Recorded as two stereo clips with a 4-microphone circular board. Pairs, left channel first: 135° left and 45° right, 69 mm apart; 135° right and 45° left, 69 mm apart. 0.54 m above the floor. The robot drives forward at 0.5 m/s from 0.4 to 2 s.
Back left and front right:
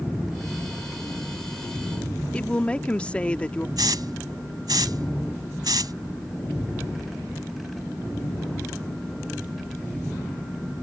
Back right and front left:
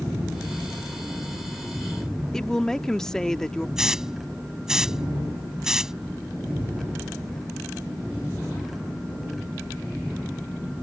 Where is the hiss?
35° right.